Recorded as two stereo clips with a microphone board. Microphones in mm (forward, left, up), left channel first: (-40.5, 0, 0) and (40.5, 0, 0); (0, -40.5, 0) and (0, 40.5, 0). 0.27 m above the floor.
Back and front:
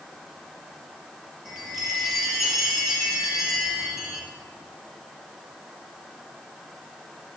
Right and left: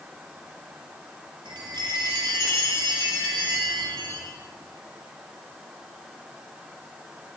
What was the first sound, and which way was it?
A chime, 85° left.